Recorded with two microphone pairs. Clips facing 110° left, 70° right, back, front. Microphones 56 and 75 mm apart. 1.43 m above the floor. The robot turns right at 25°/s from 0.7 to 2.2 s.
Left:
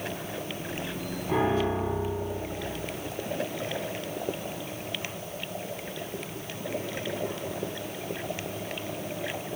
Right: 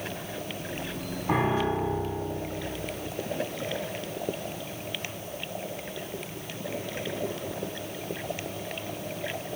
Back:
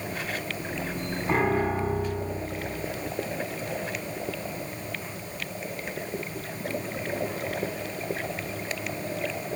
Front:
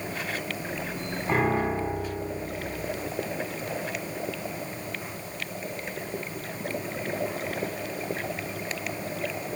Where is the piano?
90° right, 2 m; by 2.3 s 70° right, 2 m.